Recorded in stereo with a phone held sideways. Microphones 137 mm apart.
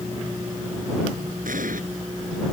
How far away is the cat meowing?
I don't hear a cat meowing.